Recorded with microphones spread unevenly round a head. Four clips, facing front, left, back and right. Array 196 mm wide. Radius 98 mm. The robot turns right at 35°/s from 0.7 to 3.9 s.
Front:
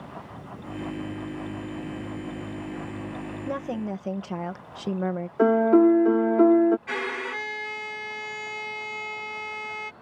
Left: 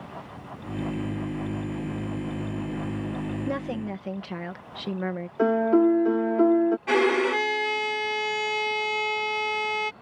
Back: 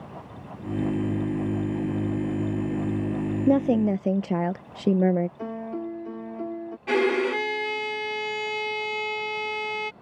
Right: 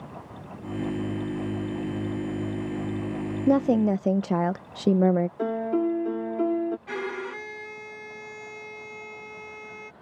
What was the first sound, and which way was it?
A woman speaking, 140° right.